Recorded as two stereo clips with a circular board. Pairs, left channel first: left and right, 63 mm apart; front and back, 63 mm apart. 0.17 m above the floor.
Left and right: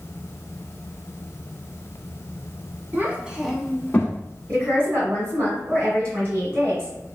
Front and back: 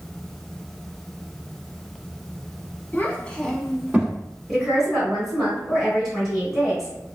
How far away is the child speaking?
About 0.8 m.